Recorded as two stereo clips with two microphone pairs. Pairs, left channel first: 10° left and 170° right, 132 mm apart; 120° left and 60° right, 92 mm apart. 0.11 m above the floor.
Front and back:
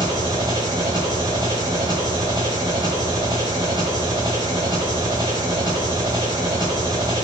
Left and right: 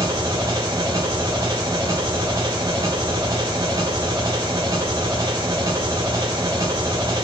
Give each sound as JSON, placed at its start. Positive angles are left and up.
{"t": 0.0, "sound": "an engine running", "azimuth_deg": -115, "distance_m": 4.0}